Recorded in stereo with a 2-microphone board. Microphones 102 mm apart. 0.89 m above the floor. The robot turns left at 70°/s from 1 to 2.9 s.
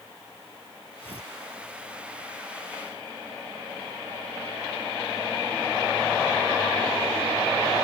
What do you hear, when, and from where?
1.0 s tearing paper: 60° left (ahead or behind); by 1.3 s 80° left